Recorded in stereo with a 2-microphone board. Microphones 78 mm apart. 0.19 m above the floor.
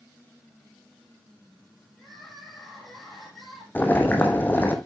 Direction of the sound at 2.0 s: Centre (ahead or behind).